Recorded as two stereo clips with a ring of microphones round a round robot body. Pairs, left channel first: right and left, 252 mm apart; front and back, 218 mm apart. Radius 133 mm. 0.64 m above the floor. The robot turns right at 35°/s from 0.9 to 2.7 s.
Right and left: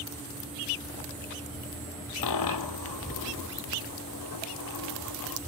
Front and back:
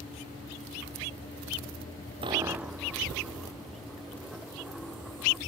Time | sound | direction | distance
2.2 | a dropped coin | 110° right | ?